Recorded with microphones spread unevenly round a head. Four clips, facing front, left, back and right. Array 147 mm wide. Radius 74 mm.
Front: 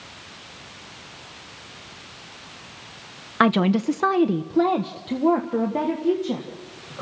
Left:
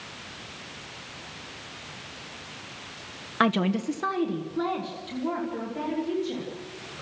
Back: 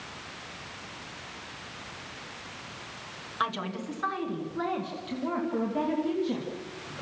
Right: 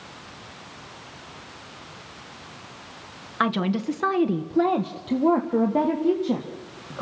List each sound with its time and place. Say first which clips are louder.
3.4 s a woman speaking: even, front 13 dB; 15° left, 0.8 m; by 7.0 s 70° right, 2.5 m